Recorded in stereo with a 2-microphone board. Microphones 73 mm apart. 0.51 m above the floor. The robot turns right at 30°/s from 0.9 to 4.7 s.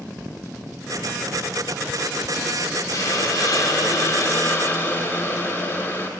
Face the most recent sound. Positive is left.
turn(degrees=140)